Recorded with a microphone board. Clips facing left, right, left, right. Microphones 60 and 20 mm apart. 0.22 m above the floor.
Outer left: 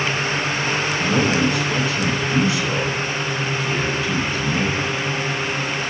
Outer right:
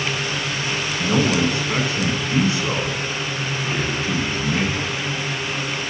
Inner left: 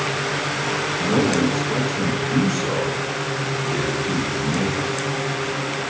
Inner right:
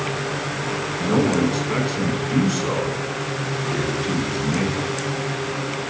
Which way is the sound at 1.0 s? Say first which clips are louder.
Outer right 1 dB, inner right 1 dB; 35° right (ahead or behind).